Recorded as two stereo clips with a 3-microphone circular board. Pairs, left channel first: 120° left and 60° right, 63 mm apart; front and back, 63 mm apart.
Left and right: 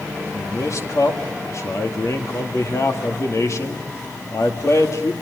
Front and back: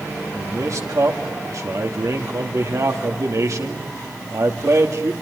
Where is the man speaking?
150° left, 2 m.